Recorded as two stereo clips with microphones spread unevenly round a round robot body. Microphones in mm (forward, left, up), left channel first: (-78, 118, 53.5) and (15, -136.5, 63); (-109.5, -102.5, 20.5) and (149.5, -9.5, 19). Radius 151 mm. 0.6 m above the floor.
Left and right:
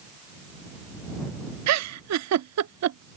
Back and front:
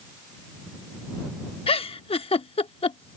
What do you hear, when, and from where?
1.7 s a giggle: 90° right